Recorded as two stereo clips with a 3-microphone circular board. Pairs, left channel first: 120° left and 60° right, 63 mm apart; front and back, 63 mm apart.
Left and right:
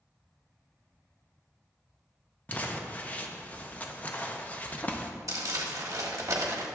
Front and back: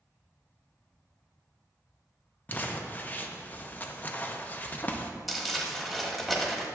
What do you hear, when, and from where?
2.5 s crumpling: 60° left, 0.6 m
5.3 s crumpling: 90° right, 1.2 m